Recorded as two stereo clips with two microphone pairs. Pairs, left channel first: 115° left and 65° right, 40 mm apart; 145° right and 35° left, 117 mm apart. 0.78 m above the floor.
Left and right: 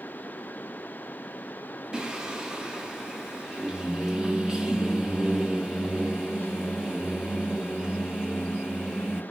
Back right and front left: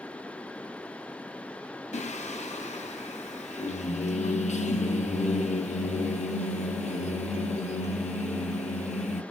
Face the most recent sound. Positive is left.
turn(degrees=-140)